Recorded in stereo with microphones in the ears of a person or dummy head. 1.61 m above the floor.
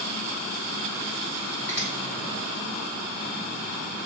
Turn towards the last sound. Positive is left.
turn(degrees=15)  # may be behind; listen again after turning